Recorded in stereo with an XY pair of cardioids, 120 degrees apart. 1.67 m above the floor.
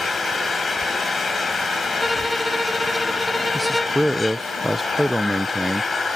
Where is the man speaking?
Straight ahead.